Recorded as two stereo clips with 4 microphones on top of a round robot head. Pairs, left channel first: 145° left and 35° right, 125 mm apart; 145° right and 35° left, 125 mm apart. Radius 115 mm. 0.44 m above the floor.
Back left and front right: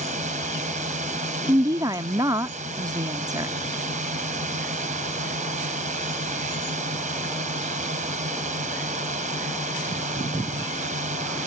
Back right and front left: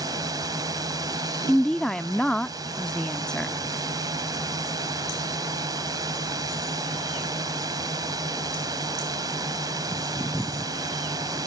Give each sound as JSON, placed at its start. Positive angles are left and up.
{"t": 0.0, "sound": "a drone", "azimuth_deg": -25}
{"t": 1.5, "sound": "a woman speaking", "azimuth_deg": -65}